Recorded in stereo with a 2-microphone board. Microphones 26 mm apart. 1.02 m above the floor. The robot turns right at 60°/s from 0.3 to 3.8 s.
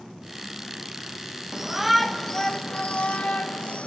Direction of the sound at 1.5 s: 25° right.